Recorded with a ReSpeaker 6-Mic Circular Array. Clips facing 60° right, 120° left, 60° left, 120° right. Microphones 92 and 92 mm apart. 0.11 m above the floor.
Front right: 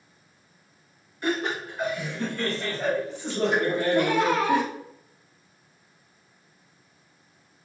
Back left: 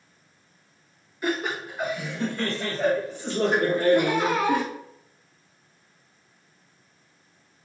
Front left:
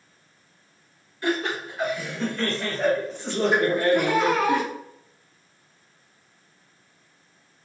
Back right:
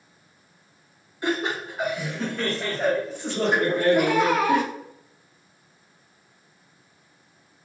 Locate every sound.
1.2 s laughter: 160° right, 1.8 m; by 4.6 s 145° left, 2.5 m
4.0 s laughter: 160° left, 1.2 m